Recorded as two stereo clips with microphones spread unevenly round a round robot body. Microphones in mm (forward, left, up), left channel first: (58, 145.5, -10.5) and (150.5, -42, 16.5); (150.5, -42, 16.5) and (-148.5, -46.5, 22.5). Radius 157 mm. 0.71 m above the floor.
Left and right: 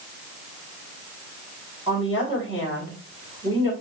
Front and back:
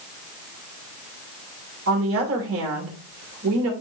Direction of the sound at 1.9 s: 135° right.